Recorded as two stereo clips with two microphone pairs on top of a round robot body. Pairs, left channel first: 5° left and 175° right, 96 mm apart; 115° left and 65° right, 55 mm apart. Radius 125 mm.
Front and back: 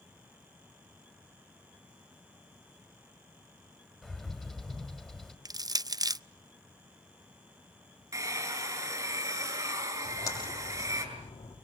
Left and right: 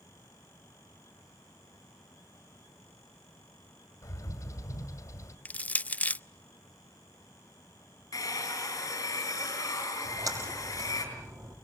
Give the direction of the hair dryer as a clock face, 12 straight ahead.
8 o'clock.